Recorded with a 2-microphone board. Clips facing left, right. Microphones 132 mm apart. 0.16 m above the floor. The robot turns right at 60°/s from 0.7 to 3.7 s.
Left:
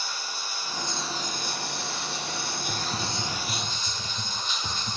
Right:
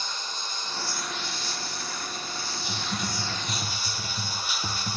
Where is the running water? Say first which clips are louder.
Even; 10° left, 1.6 m; by 5.0 s 170° right, 1.6 m.